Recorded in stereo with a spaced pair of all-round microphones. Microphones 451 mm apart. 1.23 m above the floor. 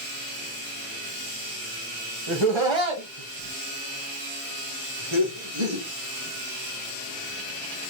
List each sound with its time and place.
2.3 s laughter: 80° right, 1.0 m; by 5.8 s 75° right (ahead or behind), 3 m